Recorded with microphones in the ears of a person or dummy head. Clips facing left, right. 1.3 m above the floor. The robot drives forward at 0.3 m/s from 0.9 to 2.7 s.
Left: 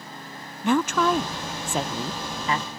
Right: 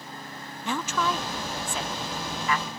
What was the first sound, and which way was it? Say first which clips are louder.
A woman speaking: left 7 dB; 45° left (ahead or behind).